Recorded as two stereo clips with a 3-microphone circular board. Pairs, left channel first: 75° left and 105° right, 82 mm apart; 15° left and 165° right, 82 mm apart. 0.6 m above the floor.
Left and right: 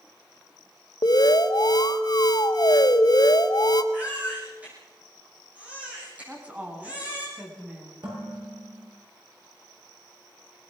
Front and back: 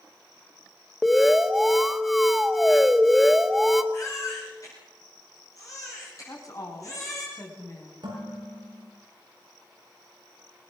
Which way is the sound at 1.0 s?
105° left.